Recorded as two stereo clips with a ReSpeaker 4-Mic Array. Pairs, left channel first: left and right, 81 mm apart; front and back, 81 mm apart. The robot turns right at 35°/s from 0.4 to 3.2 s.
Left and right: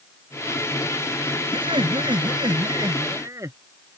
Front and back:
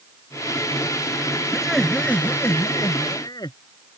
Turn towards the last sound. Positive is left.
turn(degrees=-40)